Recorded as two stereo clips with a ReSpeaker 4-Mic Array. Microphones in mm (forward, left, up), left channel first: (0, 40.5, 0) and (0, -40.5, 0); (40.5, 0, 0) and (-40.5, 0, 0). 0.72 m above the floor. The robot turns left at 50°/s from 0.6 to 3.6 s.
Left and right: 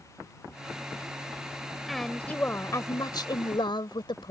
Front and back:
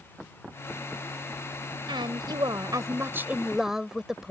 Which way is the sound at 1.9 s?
Straight behind.